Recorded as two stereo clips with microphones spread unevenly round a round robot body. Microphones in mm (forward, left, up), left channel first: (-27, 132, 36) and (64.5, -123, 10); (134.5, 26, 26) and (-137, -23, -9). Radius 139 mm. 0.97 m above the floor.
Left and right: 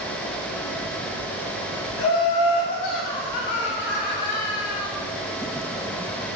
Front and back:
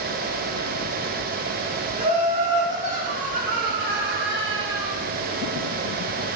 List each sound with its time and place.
2.0 s laughter: 120° left, 3.5 m; by 5.0 s 155° left, 1.5 m